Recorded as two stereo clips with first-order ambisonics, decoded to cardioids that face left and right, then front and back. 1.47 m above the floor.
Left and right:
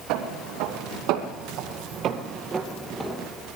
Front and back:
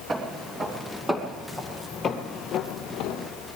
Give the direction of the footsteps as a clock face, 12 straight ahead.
4 o'clock.